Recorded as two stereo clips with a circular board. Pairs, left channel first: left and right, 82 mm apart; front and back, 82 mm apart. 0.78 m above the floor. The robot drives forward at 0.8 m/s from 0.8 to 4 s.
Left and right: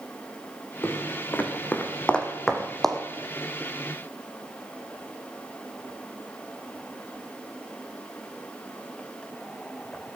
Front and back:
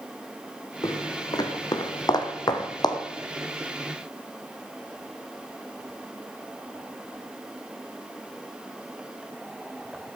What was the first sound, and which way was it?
Footsteps, 30° left.